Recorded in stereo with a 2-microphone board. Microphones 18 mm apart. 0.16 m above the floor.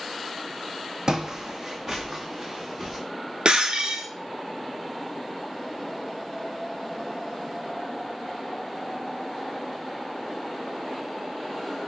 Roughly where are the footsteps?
Right.